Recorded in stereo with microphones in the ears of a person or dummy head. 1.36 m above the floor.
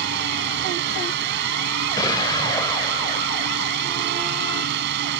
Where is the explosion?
20° left (ahead or behind).